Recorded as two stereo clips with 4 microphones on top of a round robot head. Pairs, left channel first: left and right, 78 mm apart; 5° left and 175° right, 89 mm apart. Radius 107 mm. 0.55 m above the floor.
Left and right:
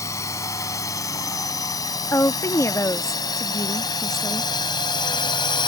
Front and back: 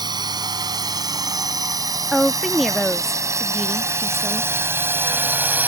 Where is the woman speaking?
95° left.